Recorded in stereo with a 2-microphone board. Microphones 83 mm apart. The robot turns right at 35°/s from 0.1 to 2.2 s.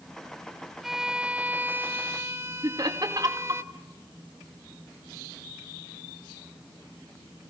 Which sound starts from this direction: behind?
A violin, at 0.8 s.